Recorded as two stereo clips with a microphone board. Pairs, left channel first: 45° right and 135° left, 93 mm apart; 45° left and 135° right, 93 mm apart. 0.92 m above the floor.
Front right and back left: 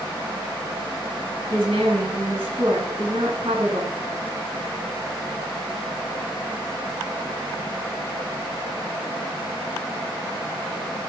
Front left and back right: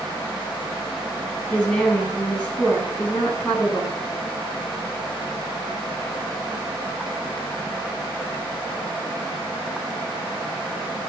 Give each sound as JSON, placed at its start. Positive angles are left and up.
{"t": 1.5, "sound": "a woman speaking", "azimuth_deg": 125, "distance_m": 8.5}